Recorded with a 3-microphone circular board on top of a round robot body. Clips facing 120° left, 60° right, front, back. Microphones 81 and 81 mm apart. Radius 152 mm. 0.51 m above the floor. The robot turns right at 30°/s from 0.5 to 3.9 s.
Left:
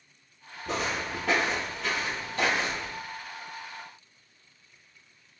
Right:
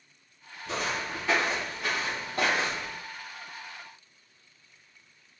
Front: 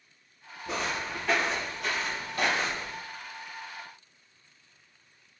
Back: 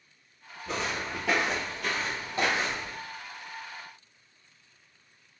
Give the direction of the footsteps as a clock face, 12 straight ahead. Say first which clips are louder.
Left 1 dB, even; 9 o'clock.